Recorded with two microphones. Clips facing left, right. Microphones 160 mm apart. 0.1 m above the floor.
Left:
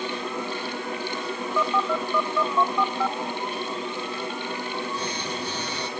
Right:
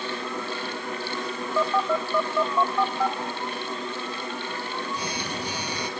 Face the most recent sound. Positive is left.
turn(degrees=-10)  # may be behind; listen again after turning